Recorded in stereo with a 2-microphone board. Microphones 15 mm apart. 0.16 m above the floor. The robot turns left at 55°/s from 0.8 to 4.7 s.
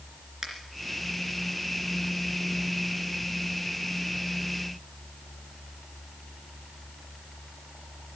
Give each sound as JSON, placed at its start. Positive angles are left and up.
{"t": 0.4, "sound": "a finger snap", "side_deg": -35, "distance_m": 2.5}